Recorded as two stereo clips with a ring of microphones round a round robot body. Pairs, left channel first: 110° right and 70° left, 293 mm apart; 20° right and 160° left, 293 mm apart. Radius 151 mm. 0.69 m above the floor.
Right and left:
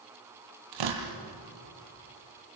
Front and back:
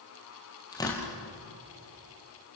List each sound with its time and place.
0.7 s tearing paper: 55° left, 3.5 m